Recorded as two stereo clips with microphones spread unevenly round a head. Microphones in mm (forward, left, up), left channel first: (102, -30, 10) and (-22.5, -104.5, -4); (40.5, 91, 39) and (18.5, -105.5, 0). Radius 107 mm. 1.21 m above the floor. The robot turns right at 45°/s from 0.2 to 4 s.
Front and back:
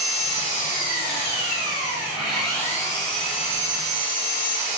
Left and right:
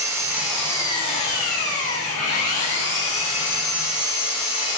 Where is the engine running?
20° right, 2.5 m; by 4.8 s 150° left, 2.5 m.